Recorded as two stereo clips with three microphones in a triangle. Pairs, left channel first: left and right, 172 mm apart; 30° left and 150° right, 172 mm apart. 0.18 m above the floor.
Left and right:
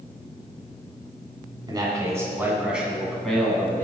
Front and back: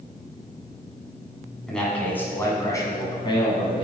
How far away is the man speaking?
About 1.6 m.